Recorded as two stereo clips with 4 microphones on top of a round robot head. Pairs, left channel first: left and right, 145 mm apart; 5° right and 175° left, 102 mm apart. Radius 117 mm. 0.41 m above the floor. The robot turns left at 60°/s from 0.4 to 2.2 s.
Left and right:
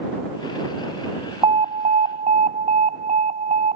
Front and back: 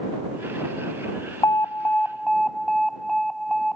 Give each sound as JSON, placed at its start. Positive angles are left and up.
{"t": 1.4, "sound": "an alarm", "azimuth_deg": -50}